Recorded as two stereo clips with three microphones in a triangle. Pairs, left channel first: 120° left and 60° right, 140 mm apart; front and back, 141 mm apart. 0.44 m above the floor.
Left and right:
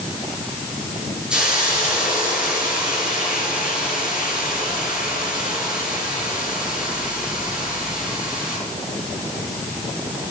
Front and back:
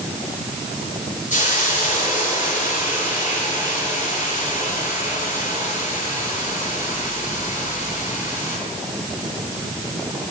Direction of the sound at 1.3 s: 25° left.